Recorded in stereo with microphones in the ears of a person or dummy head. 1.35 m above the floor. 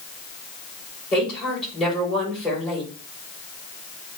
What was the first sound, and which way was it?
A woman speaking, 5° left (ahead or behind).